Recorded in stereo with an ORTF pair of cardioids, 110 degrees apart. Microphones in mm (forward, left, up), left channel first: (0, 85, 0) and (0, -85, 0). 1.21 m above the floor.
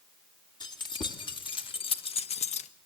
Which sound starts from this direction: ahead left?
Keys jangling, at 0.6 s.